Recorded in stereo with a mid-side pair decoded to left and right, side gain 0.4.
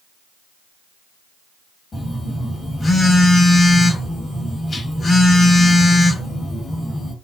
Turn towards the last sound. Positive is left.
turn(degrees=35)